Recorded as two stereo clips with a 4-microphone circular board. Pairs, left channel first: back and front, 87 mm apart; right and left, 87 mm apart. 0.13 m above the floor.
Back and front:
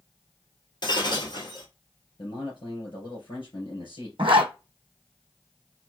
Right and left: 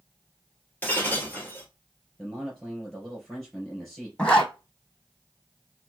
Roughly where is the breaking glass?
Behind.